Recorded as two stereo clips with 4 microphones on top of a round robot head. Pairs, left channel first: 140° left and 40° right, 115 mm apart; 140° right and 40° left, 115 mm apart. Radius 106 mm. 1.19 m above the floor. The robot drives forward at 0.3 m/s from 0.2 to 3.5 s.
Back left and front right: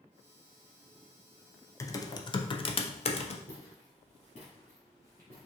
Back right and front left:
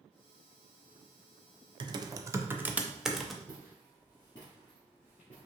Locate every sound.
1.8 s typing on a keyboard: 80° left, 0.5 m; by 3.4 s 135° left, 0.7 m
3.5 s footsteps: 150° left, 1.8 m; by 5.5 s 145° right, 1.5 m